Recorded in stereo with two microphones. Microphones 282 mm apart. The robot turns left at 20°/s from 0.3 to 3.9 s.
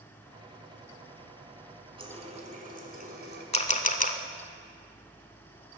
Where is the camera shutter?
25° left (ahead or behind), 0.6 m; by 4.2 s 30° left (ahead or behind), 0.6 m.